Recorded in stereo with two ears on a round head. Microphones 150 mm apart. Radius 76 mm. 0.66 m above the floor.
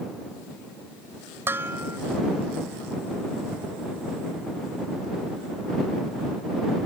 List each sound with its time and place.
1.5 s dishes clattering: 15° right (ahead or behind)